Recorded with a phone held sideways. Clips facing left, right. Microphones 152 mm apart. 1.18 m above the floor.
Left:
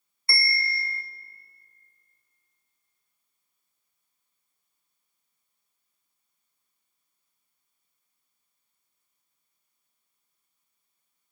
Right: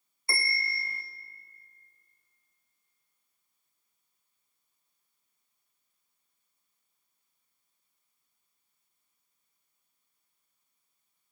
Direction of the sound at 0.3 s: 15° right (ahead or behind).